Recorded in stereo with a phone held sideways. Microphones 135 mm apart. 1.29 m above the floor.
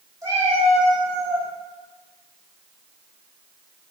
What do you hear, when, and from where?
0.2 s a cat meowing: 25° right (ahead or behind), 1.6 m; by 1.5 s 35° right (ahead or behind), 1.1 m